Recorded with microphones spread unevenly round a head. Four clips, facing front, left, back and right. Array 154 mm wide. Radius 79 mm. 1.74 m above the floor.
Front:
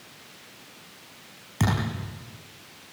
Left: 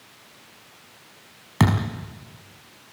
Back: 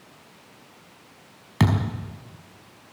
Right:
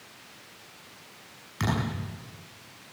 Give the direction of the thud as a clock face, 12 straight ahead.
8 o'clock.